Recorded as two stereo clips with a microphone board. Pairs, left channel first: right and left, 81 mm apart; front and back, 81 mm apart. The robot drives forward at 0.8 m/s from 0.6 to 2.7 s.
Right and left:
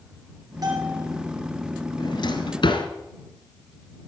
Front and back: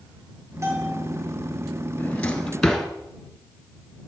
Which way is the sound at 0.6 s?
125° left.